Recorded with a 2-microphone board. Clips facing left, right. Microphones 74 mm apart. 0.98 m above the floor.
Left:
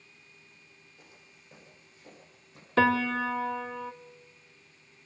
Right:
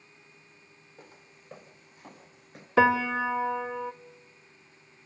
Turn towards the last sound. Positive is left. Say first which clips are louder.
# right 2 dB
turn(degrees=-15)  # may be behind; listen again after turning